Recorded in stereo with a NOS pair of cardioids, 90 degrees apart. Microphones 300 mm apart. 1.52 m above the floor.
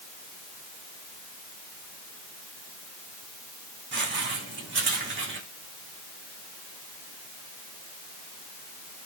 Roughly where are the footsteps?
Ahead right.